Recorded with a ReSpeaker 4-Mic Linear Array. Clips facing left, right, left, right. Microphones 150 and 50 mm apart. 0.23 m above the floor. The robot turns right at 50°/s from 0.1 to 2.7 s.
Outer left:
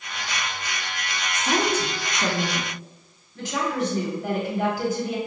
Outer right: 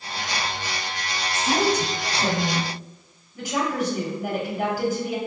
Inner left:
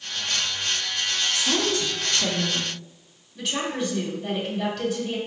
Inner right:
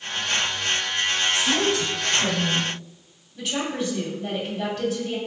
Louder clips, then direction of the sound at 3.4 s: Outer right 1 dB, even; 10° right (ahead or behind).